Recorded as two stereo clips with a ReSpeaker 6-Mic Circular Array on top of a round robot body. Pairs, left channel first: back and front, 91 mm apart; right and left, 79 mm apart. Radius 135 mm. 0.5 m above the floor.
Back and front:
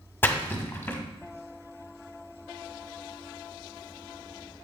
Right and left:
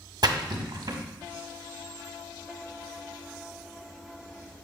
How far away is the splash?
About 1.5 m.